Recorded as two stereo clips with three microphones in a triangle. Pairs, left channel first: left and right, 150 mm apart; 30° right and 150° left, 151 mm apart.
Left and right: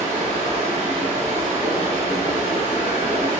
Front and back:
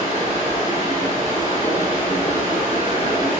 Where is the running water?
60° right, 1.7 m.